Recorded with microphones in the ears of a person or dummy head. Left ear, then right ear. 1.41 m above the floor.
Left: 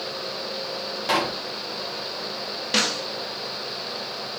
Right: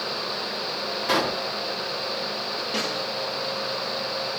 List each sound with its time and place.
1.1 s a pop: 10° left (ahead or behind), 1.5 m
2.7 s a snare drum: 40° left (ahead or behind), 0.5 m